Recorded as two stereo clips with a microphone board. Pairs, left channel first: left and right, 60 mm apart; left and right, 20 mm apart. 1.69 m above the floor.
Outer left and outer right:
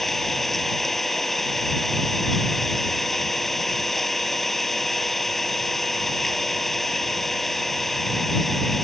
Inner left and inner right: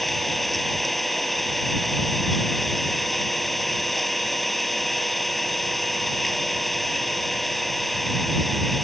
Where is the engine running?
5° left (ahead or behind).